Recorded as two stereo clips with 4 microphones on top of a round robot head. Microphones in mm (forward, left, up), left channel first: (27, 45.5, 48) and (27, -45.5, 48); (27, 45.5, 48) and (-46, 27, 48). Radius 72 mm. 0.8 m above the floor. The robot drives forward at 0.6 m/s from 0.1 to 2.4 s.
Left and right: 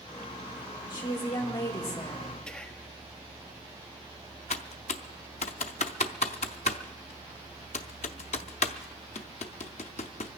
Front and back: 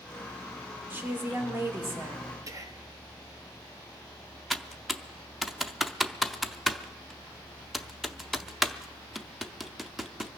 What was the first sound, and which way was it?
A woman speaking, 135° left.